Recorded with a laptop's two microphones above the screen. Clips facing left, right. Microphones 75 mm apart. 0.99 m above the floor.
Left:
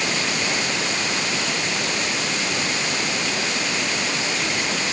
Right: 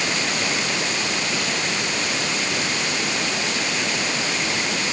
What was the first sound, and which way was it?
Only background noise.